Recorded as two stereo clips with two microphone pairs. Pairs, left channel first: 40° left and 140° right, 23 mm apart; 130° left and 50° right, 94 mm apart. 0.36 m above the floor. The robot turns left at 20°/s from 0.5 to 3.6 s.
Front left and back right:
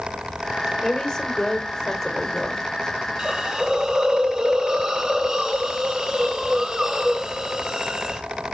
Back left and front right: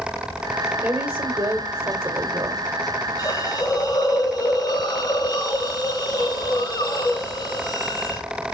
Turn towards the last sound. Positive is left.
turn(degrees=165)